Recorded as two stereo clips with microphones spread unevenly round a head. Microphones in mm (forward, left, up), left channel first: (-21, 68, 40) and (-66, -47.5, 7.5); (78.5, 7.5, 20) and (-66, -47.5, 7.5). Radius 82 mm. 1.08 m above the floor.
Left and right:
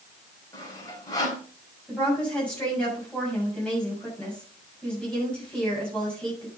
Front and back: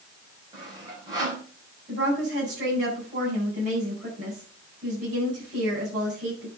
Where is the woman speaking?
150° left, 7 m.